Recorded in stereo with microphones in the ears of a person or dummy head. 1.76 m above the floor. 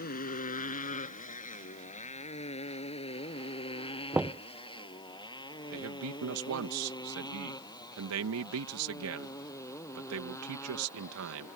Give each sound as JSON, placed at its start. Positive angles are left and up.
{"t": 0.0, "sound": "a motorcycle", "side_deg": 50}
{"t": 4.1, "sound": "knocking", "side_deg": -5}
{"t": 5.7, "sound": "a man speaking", "side_deg": -80}